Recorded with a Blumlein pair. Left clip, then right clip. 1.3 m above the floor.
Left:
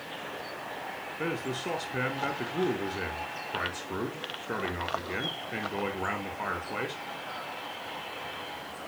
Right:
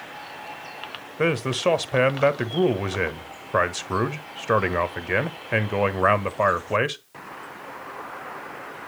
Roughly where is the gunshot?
No gunshot in this recording.